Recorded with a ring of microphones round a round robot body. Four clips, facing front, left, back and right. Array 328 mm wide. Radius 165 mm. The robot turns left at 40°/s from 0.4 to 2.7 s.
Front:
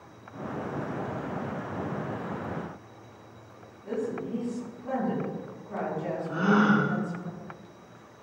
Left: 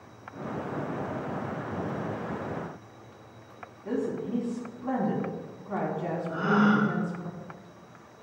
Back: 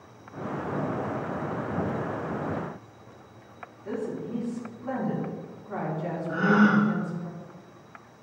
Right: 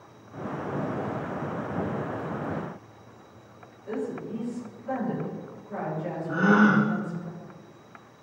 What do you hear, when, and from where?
3.9 s a woman speaking: 110° left, 6 m
6.3 s a gasp: 105° right, 1.8 m